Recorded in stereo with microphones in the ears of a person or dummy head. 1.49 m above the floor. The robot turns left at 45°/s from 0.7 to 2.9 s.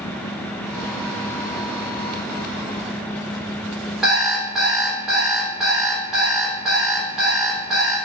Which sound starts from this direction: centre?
An alarm clock, at 4.0 s.